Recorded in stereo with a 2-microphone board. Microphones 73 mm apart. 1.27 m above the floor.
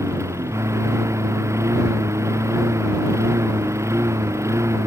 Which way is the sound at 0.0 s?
45° right (ahead or behind).